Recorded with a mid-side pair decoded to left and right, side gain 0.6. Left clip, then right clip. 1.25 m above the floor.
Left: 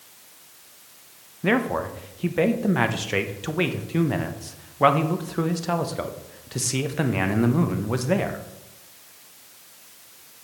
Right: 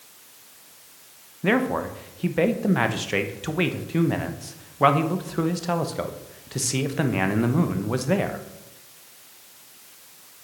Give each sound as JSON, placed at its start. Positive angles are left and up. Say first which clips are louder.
{"t": 1.4, "sound": "a man speaking", "louder": "even", "azimuth_deg": 0, "distance_m": 0.9}